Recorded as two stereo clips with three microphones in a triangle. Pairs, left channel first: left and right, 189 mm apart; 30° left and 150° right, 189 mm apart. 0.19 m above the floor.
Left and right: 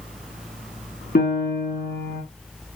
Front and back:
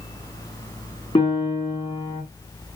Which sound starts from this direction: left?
A piano, at 1.1 s.